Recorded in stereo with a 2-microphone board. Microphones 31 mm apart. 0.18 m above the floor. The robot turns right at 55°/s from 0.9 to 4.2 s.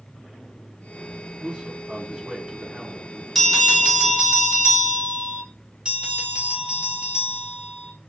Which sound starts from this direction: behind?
A bell, at 3.4 s.